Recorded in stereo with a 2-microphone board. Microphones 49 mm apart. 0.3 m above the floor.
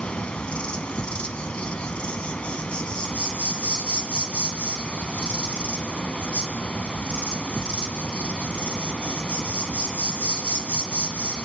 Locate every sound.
0.0 s an insect: 25° left (ahead or behind), 1.8 m